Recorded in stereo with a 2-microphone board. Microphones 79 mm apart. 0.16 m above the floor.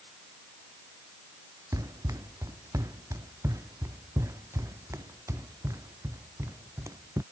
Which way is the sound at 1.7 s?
45° right (ahead or behind).